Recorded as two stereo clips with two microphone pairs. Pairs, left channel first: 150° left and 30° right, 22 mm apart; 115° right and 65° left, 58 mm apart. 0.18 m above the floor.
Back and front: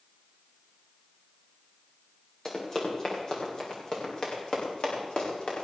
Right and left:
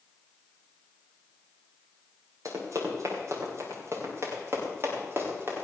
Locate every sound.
2.5 s running footsteps: 90° left, 5.5 m; by 5.6 s 115° left, 6.5 m